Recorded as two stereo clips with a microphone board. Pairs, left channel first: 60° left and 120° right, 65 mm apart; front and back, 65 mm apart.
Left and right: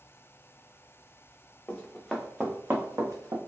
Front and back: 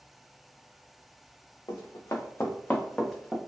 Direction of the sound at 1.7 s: 15° right.